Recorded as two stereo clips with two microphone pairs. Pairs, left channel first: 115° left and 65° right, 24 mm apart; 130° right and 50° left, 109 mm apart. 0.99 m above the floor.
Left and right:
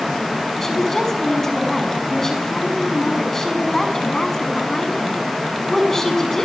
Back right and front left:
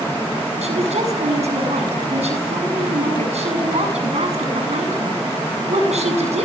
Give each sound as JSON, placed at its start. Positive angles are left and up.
{"t": 0.6, "sound": "a woman speaking", "azimuth_deg": 45, "distance_m": 7.0}